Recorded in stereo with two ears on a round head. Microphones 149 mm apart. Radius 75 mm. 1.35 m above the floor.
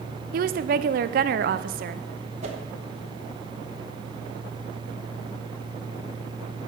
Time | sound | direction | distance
0.3 | a woman speaking | 55° right (ahead or behind) | 0.6 m
2.4 | a whoosh | 40° right (ahead or behind) | 1.4 m